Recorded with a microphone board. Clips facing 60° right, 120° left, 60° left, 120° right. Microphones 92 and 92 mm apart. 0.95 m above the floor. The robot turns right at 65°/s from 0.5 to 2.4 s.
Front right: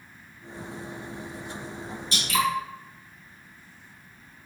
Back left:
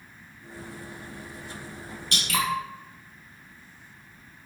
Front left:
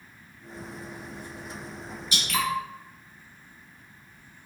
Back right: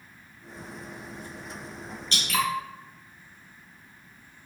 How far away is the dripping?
About 0.7 m.